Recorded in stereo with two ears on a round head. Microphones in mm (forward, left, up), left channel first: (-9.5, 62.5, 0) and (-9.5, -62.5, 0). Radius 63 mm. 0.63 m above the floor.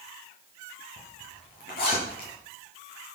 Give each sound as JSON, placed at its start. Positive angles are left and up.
{"t": 1.0, "sound": "a zipper", "side_deg": 85, "distance_m": 9.0}